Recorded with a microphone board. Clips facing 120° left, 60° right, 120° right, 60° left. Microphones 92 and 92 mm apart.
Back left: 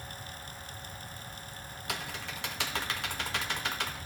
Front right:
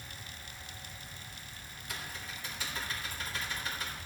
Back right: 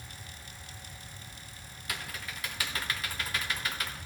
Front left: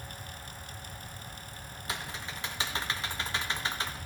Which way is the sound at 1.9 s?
125° left.